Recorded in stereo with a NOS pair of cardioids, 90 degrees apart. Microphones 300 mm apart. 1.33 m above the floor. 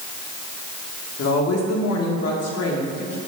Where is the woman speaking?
55° left, 2 m.